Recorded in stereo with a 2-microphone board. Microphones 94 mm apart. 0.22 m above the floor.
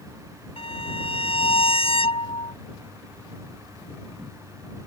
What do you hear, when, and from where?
0.6 s a violin: 80° left